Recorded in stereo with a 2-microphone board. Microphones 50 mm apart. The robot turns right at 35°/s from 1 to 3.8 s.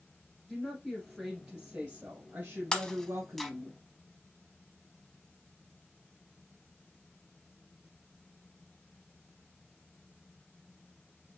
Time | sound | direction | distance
0.5 | a woman speaking | 170° left | 2.5 m
2.7 | breaking glass | 15° left (ahead or behind) | 0.7 m